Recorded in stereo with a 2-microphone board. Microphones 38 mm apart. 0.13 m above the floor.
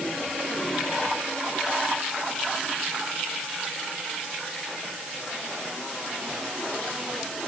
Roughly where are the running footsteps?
I don't hear running footsteps.